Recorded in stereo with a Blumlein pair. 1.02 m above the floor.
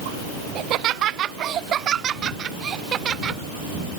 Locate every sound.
0.6 s laughter: 35° right; by 3.4 s 25° right